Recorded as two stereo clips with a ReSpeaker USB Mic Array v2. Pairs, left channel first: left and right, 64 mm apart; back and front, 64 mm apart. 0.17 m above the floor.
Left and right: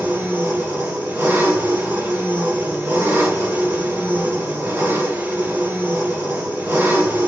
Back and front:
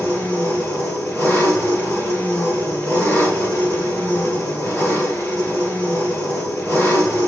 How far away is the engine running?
About 2.0 m.